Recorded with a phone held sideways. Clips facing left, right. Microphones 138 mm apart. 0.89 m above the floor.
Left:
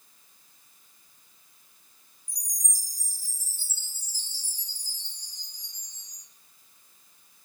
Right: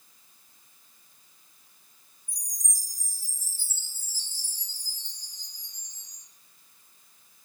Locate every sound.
2.3 s a chime: 75° left (ahead or behind), 1.0 m